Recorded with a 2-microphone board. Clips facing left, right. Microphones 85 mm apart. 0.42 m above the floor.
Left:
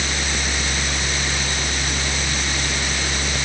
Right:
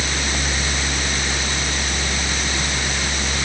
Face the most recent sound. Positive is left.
No sound to turn to.